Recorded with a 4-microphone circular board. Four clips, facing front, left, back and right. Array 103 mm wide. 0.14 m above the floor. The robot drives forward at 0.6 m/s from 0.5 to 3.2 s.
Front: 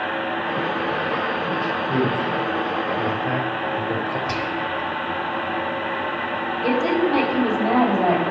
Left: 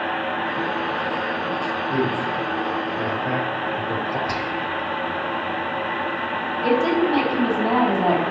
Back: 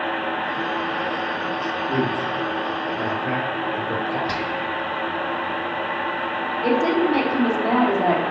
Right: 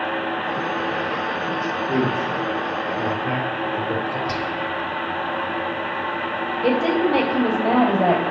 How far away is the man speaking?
About 2.5 m.